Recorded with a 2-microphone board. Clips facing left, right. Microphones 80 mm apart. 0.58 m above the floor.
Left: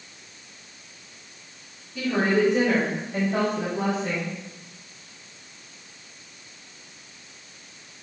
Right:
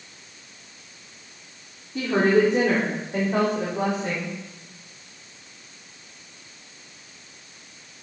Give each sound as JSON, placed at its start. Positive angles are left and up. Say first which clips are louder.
{"t": 1.9, "sound": "a woman speaking", "louder": "right 3 dB", "side_deg": -40, "distance_m": 1.5}